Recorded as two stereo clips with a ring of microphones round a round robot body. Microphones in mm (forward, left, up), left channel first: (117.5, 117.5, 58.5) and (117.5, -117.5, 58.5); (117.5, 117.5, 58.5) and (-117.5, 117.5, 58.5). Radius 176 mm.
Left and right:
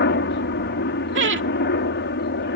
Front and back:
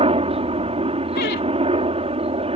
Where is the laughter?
55° right.